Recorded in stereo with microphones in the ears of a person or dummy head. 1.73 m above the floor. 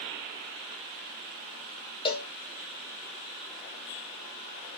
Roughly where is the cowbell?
Left.